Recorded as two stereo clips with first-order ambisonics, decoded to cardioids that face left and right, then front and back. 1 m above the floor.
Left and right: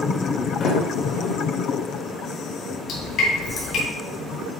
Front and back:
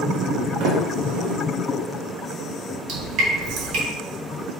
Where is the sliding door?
150° left, 1.5 m.